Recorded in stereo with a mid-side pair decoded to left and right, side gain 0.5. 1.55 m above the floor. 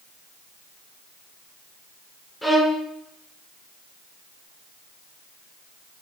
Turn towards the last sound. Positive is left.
turn(degrees=25)